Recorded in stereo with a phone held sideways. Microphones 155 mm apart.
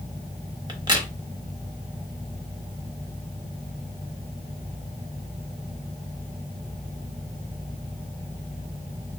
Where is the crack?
30° right (ahead or behind), 0.8 m.